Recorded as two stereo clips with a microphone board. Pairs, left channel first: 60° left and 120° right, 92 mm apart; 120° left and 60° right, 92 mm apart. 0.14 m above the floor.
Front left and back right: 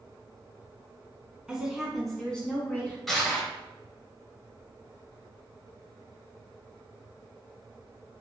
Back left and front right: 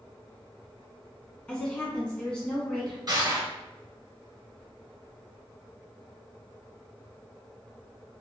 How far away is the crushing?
About 1.7 m.